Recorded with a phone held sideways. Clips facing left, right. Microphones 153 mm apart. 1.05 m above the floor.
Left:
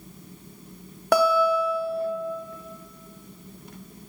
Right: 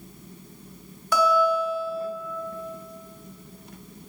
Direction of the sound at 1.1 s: 60° left (ahead or behind).